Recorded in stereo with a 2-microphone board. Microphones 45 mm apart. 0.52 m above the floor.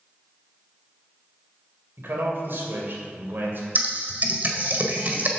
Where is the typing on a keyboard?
40° right (ahead or behind), 1.6 m.